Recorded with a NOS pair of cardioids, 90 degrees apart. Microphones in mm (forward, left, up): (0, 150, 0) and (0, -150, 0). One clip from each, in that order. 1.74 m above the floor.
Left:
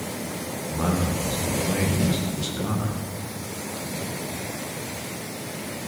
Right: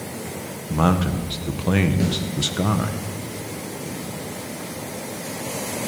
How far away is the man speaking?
About 2.0 m.